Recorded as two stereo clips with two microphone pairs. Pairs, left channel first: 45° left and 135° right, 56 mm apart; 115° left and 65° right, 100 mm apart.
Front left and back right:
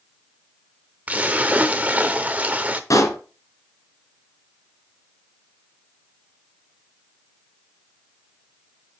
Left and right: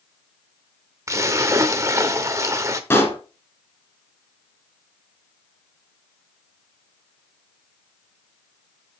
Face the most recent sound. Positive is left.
turn(degrees=50)